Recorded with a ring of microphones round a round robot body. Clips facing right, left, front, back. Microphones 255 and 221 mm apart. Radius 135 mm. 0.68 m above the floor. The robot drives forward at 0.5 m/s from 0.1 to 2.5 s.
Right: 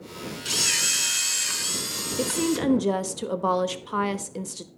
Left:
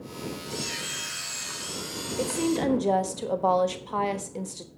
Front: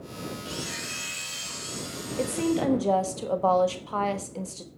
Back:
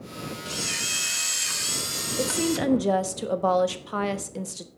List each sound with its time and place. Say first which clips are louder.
0.5 s a camera shutter: left 1 dB, even; 105° right, 0.5 m; by 2.6 s 155° right, 1.3 m
2.2 s a woman speaking: right 1 dB, even; 110° right, 1.0 m; by 4.7 s 125° right, 1.0 m